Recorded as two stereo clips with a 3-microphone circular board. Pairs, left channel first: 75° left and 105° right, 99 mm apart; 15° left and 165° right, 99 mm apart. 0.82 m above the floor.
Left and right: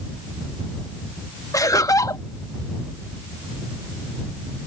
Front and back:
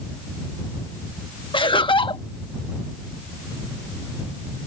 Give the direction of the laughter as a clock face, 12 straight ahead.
11 o'clock.